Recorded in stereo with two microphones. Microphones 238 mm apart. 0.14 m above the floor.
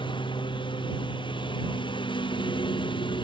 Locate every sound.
0.0 s a lawn mower: 20° left (ahead or behind)